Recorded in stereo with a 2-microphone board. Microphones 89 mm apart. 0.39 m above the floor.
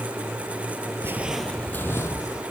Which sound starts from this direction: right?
Footsteps, at 1.0 s.